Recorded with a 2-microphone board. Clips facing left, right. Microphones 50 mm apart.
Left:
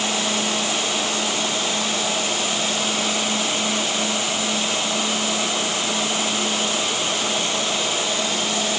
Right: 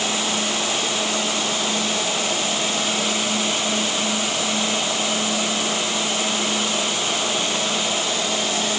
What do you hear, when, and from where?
Only background noise.